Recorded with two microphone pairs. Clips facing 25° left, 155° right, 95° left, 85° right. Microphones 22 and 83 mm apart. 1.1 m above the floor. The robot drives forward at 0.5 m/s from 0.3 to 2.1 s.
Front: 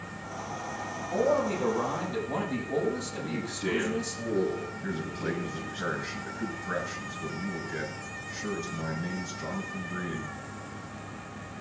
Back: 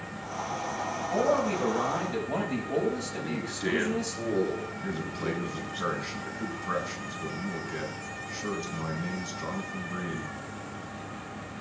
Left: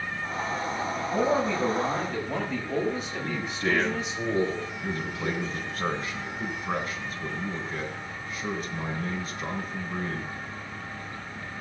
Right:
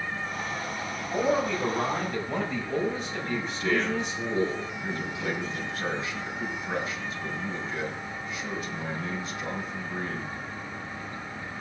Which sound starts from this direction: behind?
A man speaking, at 1.1 s.